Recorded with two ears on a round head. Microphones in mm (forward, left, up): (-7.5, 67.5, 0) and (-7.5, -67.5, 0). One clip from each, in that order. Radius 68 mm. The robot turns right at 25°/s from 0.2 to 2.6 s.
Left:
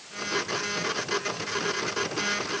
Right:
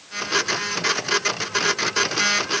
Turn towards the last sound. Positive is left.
No sound to turn to.